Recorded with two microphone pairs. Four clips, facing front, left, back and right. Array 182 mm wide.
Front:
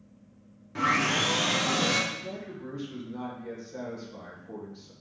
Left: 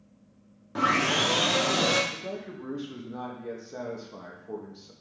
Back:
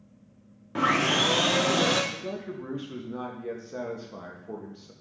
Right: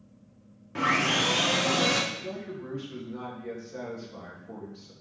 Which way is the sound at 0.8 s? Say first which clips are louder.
Left 1 dB, back 2 dB; 155° left.